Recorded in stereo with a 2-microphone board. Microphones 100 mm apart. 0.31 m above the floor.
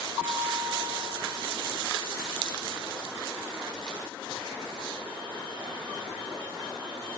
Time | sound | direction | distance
0.2 | a bell | 20° right (ahead or behind) | 5.5 m